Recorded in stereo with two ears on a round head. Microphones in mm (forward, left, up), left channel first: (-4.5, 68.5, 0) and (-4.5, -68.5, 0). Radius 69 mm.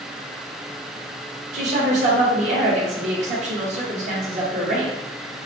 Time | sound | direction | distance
1.5 | a woman speaking | 50° right (ahead or behind) | 1.5 m